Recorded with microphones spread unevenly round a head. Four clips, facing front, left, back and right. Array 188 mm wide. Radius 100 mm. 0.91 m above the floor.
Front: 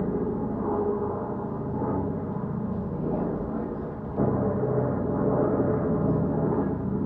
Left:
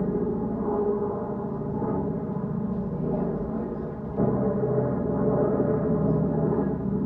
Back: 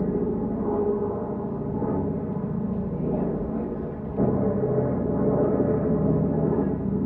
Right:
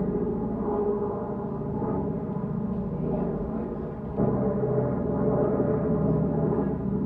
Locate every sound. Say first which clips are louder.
0.0 s an aircraft: left 1 dB, back 2 dB; 165° left